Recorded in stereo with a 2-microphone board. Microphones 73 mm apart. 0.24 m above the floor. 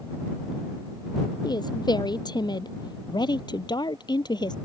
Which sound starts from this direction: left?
A woman speaking, at 1.4 s.